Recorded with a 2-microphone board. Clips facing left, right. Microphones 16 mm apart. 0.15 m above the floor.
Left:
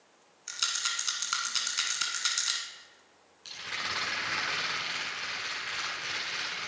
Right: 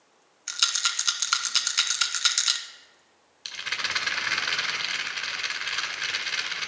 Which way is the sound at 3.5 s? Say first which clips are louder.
Right 5 dB; 45° right (ahead or behind).